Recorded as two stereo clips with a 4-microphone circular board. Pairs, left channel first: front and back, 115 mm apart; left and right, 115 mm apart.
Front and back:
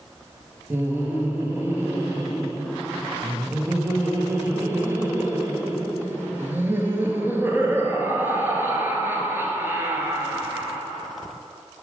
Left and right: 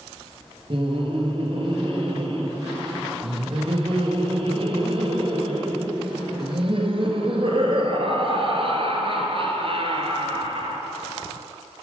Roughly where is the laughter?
Right.